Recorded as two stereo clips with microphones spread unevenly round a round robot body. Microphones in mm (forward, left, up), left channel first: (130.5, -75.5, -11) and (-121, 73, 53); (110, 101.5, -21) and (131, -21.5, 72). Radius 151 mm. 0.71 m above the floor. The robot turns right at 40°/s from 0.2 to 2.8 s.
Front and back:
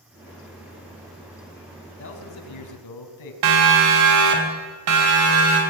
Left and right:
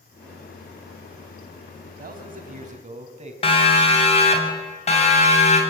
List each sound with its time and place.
2.0 s a man speaking: 80° right, 4.5 m; by 3.3 s 50° right, 4.5 m
3.4 s a siren: 130° left, 3.5 m; by 5.6 s 100° left, 5.5 m